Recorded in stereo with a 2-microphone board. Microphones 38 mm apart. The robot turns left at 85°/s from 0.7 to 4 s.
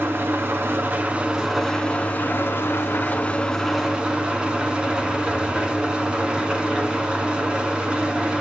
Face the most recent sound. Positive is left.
turn(degrees=-25)